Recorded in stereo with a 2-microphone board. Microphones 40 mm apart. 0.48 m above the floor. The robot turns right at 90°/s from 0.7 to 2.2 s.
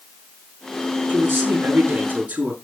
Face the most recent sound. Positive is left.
turn(degrees=-40)